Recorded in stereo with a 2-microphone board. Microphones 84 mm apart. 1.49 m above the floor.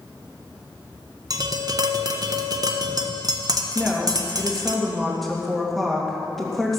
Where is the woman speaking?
Centre (ahead or behind), 2.5 m.